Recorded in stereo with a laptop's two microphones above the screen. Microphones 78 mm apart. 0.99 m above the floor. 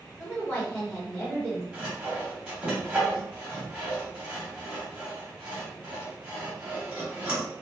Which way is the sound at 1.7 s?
15° right (ahead or behind).